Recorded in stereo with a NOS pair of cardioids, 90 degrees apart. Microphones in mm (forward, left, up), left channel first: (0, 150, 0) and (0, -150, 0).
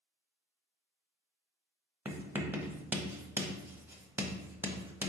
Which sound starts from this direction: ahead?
Writing, at 2.0 s.